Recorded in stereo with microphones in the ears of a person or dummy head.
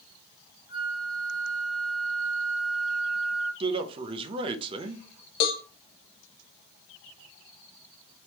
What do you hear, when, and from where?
0.7 s a flute: 45° left (ahead or behind), 1.1 m
3.6 s a man speaking: 30° right (ahead or behind), 0.6 m
5.4 s a cowbell: 50° left (ahead or behind), 0.7 m